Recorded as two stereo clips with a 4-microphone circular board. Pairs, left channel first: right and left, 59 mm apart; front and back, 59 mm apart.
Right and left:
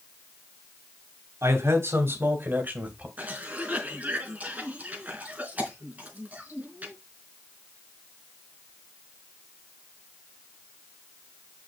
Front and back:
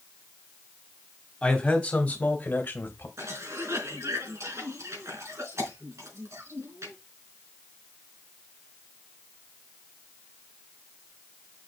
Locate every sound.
1.4 s a man speaking: 75° left, 3 m; by 3.1 s 30° left, 2 m
3.2 s a cough: 150° left, 4.5 m